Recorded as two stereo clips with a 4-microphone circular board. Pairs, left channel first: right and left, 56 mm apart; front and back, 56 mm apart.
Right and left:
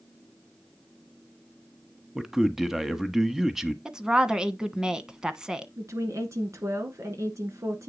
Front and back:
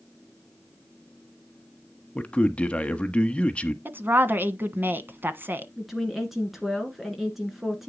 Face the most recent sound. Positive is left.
turn(degrees=95)